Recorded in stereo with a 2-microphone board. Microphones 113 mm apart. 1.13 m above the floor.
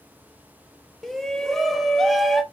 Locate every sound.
1.0 s a shout: 5° left (ahead or behind), 1.3 m